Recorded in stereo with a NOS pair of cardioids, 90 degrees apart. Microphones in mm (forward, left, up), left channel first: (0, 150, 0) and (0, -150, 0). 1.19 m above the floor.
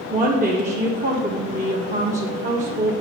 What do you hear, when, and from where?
0.1 s a woman speaking: 25° right, 1.1 m